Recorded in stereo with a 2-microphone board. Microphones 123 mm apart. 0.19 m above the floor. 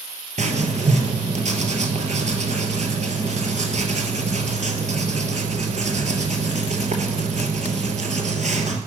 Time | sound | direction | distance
0.4 | writing | 70° right (ahead or behind) | 0.9 m